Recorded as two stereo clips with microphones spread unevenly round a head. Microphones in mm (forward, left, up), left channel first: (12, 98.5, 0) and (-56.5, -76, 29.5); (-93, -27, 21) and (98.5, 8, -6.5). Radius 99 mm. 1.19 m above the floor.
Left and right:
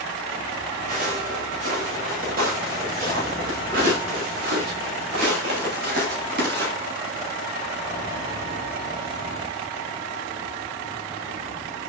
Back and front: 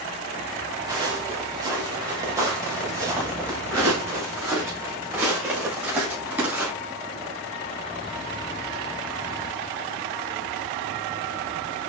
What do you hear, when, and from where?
0.9 s footsteps: 60° right, 7.5 m; by 6.7 s 70° right, 10.5 m